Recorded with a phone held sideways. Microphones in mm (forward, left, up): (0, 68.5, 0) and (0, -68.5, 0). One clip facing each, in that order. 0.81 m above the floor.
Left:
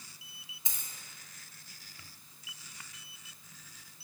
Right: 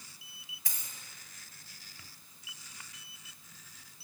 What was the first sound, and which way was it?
A dropped coin, 25° left (ahead or behind).